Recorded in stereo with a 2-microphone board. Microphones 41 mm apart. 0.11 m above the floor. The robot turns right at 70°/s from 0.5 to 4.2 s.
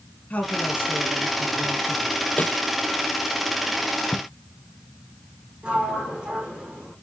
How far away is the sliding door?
About 3.5 m.